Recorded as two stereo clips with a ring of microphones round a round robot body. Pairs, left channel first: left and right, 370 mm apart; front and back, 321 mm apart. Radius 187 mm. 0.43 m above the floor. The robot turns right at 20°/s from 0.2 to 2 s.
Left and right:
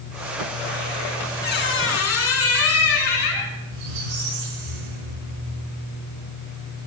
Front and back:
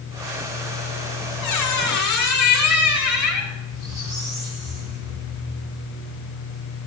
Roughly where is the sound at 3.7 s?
Right.